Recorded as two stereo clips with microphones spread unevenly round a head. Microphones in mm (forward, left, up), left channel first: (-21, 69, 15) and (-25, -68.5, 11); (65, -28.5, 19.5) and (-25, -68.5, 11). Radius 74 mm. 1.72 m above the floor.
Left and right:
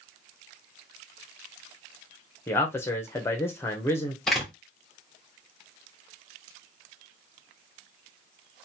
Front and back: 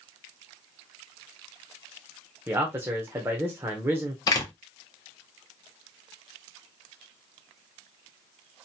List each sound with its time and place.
2.5 s a man speaking: 140° left, 0.5 m
4.3 s a door slam: 5° left, 0.7 m